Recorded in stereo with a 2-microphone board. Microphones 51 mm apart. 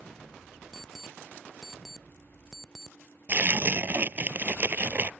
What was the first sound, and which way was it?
An alarm clock, 5° left (ahead or behind).